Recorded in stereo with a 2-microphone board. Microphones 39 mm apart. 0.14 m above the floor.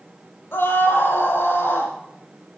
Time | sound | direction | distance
0.5 | a scream | 70° left (ahead or behind) | 5 m